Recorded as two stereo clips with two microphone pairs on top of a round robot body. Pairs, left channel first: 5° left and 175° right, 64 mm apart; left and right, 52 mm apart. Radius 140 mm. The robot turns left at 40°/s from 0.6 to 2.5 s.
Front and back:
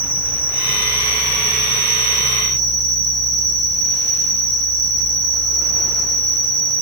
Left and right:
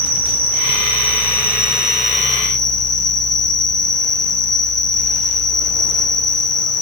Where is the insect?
115° right, 2 m; by 6.8 s 170° left, 2 m.